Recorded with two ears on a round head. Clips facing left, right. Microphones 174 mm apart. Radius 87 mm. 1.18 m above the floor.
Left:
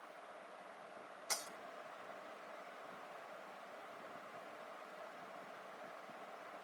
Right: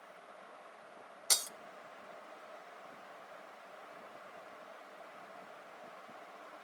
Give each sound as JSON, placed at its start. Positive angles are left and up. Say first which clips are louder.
{"t": 1.3, "sound": "breaking glass", "louder": "right 3 dB", "side_deg": -50, "distance_m": 0.5}